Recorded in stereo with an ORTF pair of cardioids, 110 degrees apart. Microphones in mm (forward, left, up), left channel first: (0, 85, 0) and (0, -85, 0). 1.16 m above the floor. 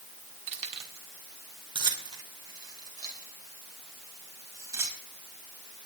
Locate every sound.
0.5 s keys jangling: 40° right, 2.0 m; by 5.0 s 15° right, 5 m